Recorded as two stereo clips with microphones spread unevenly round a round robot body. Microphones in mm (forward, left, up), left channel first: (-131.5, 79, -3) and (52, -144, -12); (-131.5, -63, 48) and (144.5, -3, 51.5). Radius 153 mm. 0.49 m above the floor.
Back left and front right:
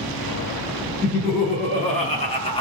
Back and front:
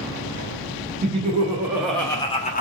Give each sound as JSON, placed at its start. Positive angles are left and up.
{"t": 1.0, "sound": "laughter", "azimuth_deg": 65, "distance_m": 1.2}